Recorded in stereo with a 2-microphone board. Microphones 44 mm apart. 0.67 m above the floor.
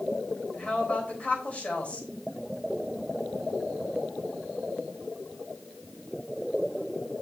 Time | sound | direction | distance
0.5 | a woman speaking | 35° left (ahead or behind) | 3.5 m